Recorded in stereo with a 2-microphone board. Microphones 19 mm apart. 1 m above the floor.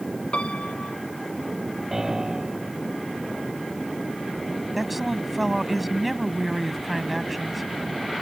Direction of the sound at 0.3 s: 70° left (ahead or behind).